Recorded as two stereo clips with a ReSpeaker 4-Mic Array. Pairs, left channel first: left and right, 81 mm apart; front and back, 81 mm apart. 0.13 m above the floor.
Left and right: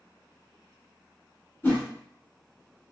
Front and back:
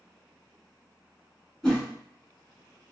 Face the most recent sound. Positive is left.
turn(degrees=70)